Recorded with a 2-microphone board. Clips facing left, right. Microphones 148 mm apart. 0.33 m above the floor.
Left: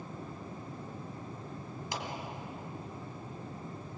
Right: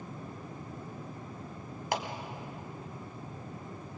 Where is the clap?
65° right (ahead or behind), 1.8 m.